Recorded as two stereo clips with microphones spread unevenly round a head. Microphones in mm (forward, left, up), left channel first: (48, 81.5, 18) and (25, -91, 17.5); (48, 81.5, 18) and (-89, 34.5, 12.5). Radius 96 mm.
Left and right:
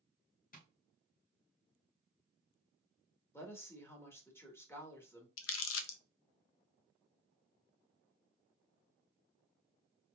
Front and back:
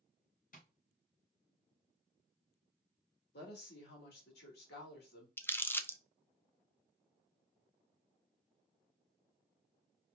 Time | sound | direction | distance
0.5 | tapping | 45° left | 2 m
3.3 | a woman speaking | 5° left | 2 m
5.4 | crumpling | 95° left | 0.7 m